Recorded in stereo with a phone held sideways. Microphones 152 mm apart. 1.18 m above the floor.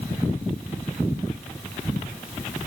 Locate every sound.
Only background noise.